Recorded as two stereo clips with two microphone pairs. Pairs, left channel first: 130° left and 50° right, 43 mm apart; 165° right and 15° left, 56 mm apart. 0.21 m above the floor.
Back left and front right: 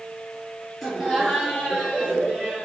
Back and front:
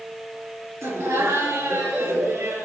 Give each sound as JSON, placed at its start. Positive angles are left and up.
{"t": 0.8, "sound": "laughter", "azimuth_deg": 30, "distance_m": 4.0}